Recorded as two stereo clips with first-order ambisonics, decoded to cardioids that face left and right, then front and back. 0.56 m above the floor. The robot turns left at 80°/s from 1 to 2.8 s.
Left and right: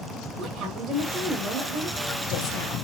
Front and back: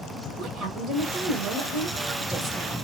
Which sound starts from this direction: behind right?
A woman speaking, at 0.4 s.